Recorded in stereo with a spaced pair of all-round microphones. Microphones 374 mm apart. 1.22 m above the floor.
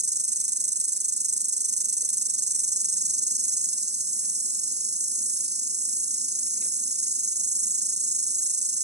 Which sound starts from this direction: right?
An insect, at 0.0 s.